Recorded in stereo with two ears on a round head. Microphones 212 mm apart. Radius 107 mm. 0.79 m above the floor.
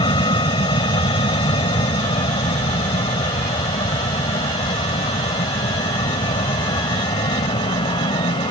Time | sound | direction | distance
0.0 | an aircraft | 20° left (ahead or behind) | ?